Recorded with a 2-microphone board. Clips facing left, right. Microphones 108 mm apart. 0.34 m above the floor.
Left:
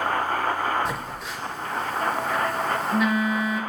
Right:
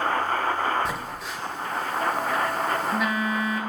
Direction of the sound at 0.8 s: Centre (ahead or behind).